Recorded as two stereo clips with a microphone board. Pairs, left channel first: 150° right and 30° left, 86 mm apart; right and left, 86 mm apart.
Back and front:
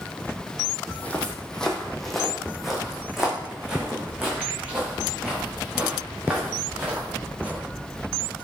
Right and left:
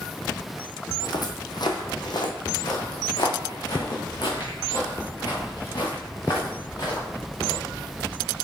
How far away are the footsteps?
About 1.1 m.